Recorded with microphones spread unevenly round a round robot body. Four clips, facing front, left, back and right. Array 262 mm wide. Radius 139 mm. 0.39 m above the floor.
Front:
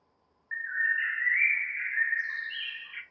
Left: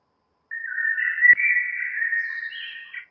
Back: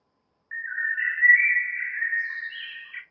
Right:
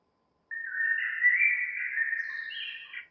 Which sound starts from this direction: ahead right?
A bird, at 0.5 s.